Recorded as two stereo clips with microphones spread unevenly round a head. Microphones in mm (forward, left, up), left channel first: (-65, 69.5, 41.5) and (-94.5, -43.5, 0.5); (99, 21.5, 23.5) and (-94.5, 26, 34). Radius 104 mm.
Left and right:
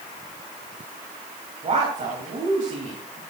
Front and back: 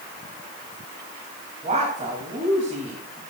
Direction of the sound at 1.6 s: 125° right.